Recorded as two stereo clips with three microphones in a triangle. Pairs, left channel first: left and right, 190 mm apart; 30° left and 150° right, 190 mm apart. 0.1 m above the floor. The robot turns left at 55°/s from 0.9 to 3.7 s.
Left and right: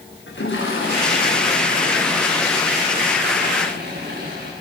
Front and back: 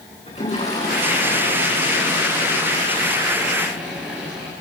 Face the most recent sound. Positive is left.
turn(degrees=-70)